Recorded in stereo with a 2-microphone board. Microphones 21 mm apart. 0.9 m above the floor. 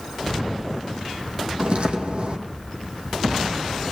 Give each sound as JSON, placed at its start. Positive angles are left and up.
{"t": 1.6, "sound": "footsteps", "side_deg": -55, "distance_m": 2.5}